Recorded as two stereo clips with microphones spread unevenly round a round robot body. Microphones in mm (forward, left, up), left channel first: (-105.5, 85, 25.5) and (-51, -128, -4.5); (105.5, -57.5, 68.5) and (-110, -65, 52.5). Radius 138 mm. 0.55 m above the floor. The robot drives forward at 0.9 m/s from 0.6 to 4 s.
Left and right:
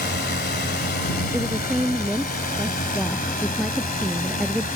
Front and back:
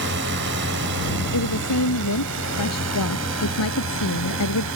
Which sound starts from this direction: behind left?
A drone, at 0.0 s.